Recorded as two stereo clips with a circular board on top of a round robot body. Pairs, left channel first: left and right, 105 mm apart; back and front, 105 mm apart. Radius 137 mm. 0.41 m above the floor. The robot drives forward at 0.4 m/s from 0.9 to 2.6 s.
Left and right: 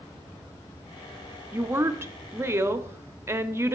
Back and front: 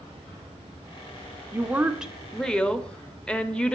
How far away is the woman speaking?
About 0.9 m.